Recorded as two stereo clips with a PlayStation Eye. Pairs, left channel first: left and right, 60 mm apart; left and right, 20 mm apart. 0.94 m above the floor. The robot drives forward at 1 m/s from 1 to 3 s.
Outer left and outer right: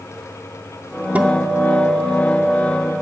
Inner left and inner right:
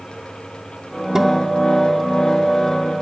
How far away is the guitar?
About 0.5 m.